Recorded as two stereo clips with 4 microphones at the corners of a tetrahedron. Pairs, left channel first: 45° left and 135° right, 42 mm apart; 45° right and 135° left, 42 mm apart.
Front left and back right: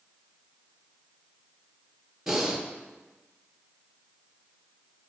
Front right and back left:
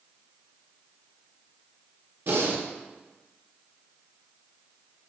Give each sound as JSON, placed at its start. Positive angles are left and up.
{"t": 2.3, "sound": "breathing", "azimuth_deg": 145, "distance_m": 1.4}